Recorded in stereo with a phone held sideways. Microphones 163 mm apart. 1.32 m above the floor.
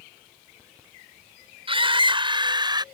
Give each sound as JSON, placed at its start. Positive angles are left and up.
{"t": 1.7, "sound": "a scream", "side_deg": -35}